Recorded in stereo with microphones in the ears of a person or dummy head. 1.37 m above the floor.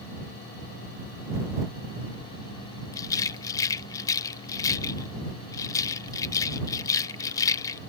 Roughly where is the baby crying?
No baby crying in this recording.